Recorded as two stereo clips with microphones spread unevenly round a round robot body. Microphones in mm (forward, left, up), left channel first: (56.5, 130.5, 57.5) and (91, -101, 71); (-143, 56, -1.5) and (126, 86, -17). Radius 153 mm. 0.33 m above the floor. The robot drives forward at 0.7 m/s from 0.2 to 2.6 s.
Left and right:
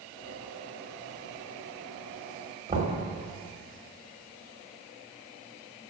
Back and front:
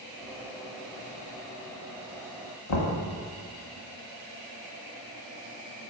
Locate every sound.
2.7 s knocking: 150° right, 1.3 m